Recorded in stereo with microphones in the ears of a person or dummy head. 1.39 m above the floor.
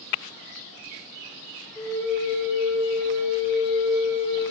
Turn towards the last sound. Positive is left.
turn(degrees=5)  # may be behind; listen again after turning